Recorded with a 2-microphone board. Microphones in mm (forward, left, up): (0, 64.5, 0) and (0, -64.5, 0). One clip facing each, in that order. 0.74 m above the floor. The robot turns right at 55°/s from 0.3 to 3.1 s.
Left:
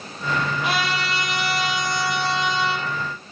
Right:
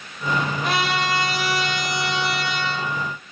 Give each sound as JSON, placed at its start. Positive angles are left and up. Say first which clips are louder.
{"t": 0.6, "sound": "a trumpet", "louder": "right 2 dB", "azimuth_deg": 170, "distance_m": 6.0}